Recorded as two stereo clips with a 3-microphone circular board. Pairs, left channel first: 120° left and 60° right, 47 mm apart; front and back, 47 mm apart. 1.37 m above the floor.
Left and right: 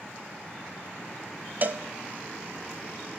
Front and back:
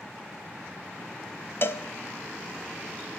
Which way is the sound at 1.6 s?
20° right.